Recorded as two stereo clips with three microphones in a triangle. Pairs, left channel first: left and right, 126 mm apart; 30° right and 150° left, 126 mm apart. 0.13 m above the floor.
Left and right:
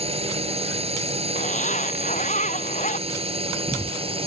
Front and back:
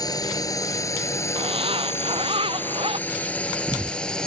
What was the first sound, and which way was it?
A drone, 80° right.